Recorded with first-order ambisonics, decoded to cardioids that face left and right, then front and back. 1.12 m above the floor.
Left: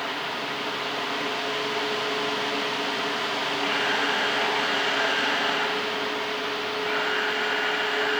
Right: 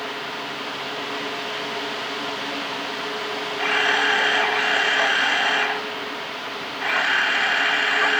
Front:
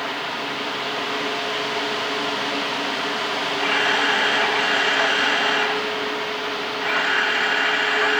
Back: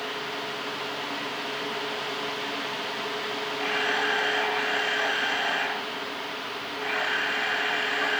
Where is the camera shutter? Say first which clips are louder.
Right 7 dB, front 6 dB; 70° right, 1.2 m.